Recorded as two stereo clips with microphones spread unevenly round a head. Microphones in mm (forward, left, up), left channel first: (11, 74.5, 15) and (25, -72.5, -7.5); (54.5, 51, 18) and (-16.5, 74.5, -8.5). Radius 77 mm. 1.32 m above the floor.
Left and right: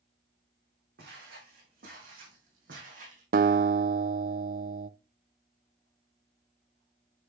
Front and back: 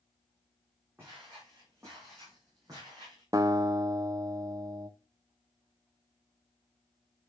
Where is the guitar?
125° right, 0.5 m.